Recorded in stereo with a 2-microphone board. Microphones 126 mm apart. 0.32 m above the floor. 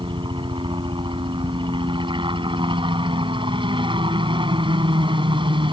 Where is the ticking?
5° right (ahead or behind).